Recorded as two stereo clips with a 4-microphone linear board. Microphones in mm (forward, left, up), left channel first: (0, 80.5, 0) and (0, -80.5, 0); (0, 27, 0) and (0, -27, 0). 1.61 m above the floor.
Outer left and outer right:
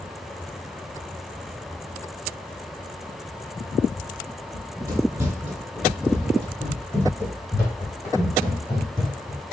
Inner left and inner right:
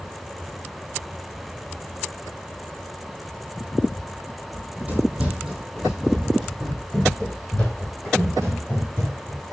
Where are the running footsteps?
25° right (ahead or behind), 1.9 m; by 9.4 s 30° left (ahead or behind), 4 m.